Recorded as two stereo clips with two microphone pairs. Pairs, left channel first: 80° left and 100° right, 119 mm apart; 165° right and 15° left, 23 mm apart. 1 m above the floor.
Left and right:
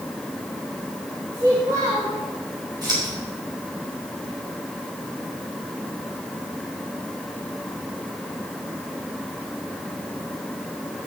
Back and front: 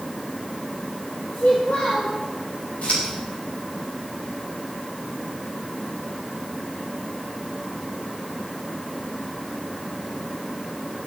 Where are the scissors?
150° right, 5.5 m.